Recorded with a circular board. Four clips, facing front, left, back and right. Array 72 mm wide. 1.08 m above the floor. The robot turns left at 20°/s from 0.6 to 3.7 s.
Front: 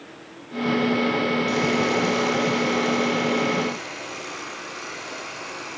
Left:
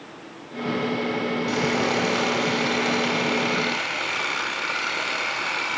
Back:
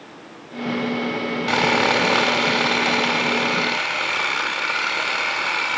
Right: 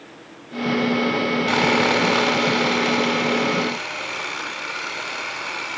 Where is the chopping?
I don't hear chopping.